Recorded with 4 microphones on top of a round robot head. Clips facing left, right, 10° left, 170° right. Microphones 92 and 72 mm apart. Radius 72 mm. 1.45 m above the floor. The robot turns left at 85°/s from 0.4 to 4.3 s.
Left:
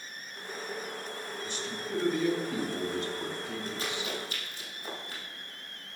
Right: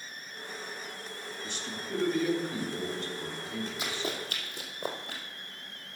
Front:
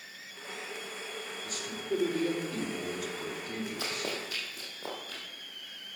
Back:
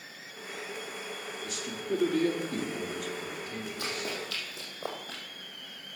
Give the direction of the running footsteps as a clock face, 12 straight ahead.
12 o'clock.